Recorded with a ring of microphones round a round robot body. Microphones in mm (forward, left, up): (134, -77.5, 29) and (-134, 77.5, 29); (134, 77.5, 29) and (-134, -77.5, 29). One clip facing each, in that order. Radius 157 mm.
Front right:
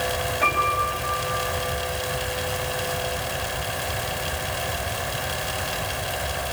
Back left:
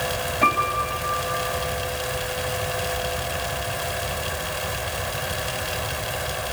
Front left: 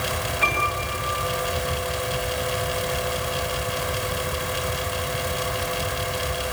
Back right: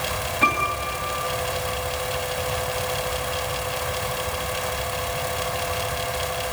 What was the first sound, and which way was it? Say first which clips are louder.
A piano: back left 1 dB, back right 1 dB; 165° left.